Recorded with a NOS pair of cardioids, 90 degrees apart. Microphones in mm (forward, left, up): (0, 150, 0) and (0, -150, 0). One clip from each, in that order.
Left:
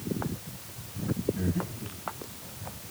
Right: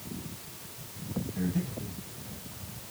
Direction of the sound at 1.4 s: 50° right.